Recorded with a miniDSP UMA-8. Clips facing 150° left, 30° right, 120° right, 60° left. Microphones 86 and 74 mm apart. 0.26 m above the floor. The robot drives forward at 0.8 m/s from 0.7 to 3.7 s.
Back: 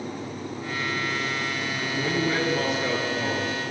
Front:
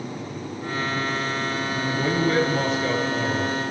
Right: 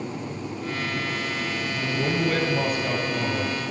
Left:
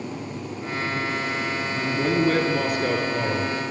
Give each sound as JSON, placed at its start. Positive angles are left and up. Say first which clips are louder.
{"t": 1.8, "sound": "a man speaking", "louder": "front 3 dB, left 4 dB", "azimuth_deg": 60, "distance_m": 3.5}